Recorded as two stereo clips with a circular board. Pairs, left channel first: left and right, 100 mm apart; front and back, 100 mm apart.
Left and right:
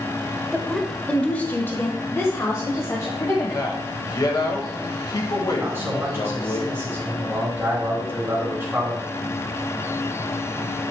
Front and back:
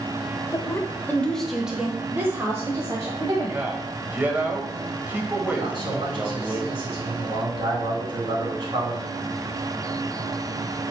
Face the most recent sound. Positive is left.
turn(degrees=-155)